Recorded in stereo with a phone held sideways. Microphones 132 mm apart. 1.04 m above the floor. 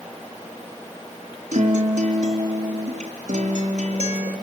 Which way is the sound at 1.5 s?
60° right (ahead or behind).